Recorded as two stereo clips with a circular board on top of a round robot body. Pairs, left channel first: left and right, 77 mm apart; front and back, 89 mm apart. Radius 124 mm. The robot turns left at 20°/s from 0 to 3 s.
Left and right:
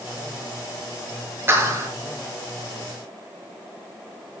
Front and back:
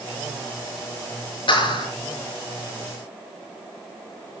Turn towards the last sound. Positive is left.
turn(degrees=-60)